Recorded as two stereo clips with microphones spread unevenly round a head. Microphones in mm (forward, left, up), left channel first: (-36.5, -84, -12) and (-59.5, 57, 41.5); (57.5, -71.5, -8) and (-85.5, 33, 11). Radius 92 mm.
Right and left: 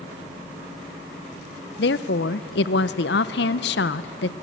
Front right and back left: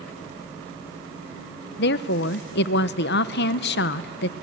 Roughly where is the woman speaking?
Ahead right.